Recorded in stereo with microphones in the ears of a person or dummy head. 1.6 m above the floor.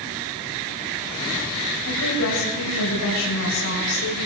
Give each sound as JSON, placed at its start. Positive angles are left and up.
{"t": 1.9, "sound": "a woman speaking", "side_deg": 80, "distance_m": 8.0}